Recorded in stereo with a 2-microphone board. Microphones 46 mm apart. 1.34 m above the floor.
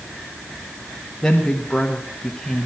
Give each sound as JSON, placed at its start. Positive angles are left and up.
{"t": 1.2, "sound": "a woman speaking", "side_deg": 15, "distance_m": 1.3}